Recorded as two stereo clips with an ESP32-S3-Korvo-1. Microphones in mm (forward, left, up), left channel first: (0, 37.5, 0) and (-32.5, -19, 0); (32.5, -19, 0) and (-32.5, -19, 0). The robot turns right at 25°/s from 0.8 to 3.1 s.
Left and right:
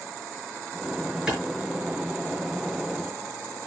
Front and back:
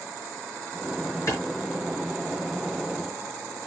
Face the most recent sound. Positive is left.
turn(degrees=0)